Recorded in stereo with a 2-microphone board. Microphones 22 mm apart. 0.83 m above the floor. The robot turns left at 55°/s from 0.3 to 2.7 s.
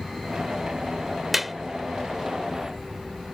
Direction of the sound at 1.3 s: 15° right (ahead or behind).